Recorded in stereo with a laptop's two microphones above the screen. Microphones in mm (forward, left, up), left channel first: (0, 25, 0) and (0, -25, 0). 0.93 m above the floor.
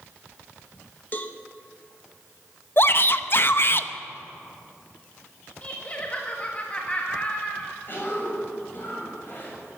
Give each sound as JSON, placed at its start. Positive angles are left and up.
{"t": 1.1, "sound": "a cowbell", "side_deg": 35, "distance_m": 1.0}
{"t": 2.8, "sound": "a shout", "side_deg": 50, "distance_m": 0.7}
{"t": 5.6, "sound": "laughter", "side_deg": 30, "distance_m": 1.5}
{"t": 7.9, "sound": "a cough", "side_deg": 40, "distance_m": 6.5}